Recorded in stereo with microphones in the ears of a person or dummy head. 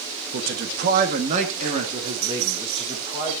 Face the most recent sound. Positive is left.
turn(degrees=-20)  # may be behind; listen again after turning